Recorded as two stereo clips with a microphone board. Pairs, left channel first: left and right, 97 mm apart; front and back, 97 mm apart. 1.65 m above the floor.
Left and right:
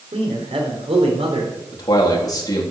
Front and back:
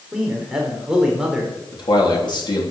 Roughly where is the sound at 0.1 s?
Right.